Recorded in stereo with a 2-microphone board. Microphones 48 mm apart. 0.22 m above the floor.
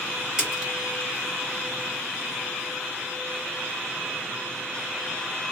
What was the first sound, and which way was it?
A splash, 15° right (ahead or behind).